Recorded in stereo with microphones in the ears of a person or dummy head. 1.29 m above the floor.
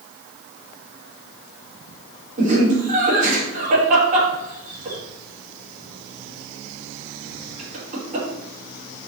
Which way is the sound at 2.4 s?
45° right (ahead or behind).